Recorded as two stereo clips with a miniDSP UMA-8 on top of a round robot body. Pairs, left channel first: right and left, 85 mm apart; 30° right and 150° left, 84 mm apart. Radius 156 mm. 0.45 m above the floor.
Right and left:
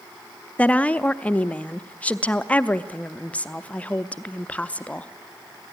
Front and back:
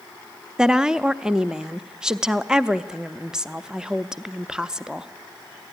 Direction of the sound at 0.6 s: 140° right.